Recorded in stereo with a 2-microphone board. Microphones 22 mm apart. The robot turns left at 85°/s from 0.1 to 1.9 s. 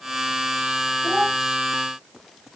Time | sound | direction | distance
1.0 | a child speaking | 55° right (ahead or behind) | 2.5 m